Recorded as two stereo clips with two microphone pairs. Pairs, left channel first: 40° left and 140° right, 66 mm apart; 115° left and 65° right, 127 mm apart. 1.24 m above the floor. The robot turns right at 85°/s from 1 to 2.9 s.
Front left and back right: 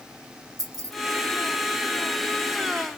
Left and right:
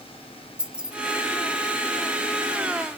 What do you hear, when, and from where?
0.6 s keys jangling: 150° right, 0.7 m